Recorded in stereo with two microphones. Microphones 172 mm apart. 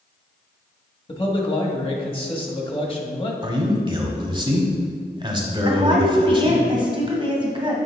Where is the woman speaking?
30° right (ahead or behind), 1.6 m.